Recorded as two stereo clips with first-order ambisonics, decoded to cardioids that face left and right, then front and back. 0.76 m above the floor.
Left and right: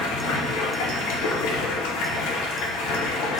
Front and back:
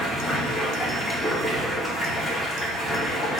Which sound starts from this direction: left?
Running water, at 0.0 s.